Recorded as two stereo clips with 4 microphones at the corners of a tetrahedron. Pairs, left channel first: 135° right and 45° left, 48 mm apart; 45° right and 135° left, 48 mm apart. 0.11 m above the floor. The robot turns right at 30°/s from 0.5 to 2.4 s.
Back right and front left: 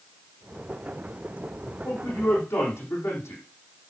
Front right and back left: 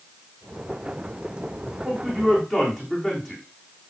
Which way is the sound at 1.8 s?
155° right.